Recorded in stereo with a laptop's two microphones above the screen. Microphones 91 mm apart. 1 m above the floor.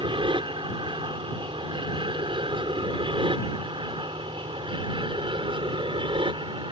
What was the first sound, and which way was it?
An aircraft, 65° right (ahead or behind).